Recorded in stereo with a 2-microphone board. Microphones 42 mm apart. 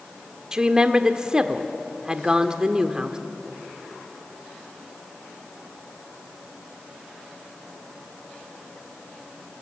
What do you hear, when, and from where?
0.5 s a woman speaking: 20° right (ahead or behind), 1.5 m